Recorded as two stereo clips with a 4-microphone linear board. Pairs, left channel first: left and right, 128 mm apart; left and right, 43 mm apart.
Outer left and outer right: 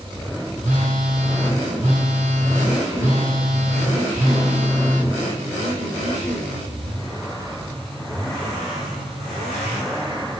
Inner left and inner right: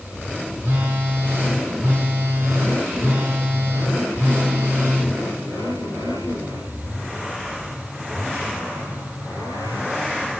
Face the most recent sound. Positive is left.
turn(degrees=-70)  # may be behind; listen again after turning